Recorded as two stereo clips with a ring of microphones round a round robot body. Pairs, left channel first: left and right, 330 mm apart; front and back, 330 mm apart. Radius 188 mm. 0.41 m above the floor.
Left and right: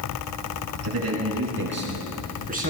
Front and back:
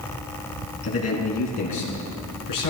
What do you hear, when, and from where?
0.8 s a man speaking: 45° right, 4.5 m; by 2.7 s 25° right, 5 m